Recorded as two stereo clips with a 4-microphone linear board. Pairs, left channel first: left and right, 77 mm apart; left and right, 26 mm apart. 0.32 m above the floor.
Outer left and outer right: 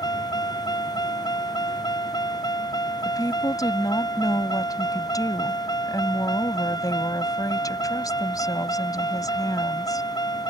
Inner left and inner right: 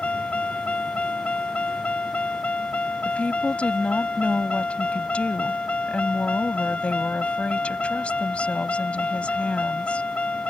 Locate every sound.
0.0 s a vehicle: 60° left (ahead or behind)
3.0 s a woman speaking: 55° left (ahead or behind)